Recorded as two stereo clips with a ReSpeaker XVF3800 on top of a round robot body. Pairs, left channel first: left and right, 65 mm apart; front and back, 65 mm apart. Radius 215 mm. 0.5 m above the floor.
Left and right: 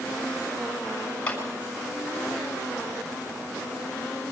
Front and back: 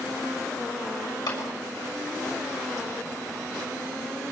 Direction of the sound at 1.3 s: 20° left.